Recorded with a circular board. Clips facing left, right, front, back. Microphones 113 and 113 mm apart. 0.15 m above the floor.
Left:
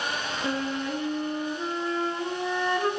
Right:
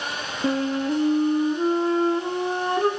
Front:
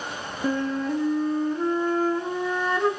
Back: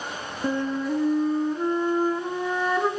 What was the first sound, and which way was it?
A flute, 100° right.